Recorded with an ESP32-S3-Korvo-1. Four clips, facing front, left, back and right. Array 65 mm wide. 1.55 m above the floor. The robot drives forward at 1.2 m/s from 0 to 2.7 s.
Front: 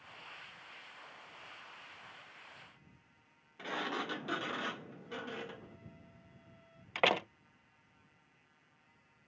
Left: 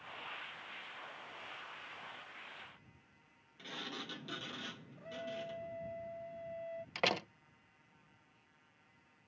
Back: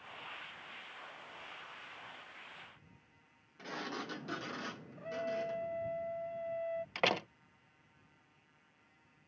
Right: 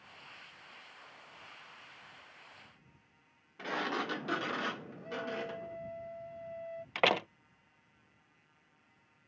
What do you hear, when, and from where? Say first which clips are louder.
3.6 s a sliding door: right 12 dB, front 4 dB; 70° right
5.0 s a trumpet: right 2 dB, back 6 dB; 175° right
7.0 s a door slam: right 7 dB, front 4 dB; 70° right